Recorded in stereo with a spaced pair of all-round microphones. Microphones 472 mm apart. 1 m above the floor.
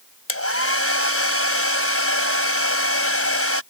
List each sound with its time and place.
0.3 s a hair dryer: 30° left (ahead or behind)